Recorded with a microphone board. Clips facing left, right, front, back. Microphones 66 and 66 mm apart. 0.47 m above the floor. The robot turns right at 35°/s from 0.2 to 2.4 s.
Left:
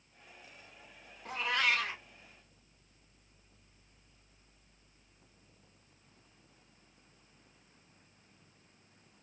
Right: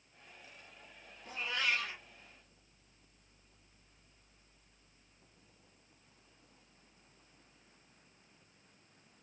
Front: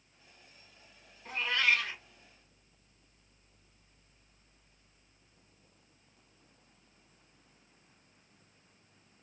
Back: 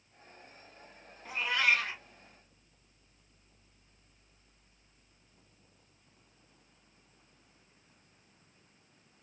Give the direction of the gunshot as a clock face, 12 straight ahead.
I don't hear a gunshot.